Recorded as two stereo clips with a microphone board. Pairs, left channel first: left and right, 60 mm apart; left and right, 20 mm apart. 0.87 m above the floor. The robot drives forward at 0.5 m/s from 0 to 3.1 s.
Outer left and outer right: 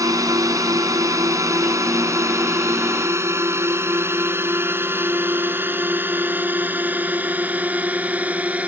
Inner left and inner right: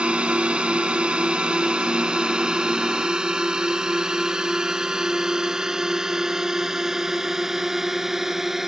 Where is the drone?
75° right (ahead or behind); by 8.7 s 25° right (ahead or behind).